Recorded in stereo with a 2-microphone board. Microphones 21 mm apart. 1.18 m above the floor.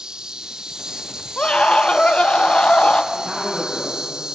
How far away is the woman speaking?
About 9 m.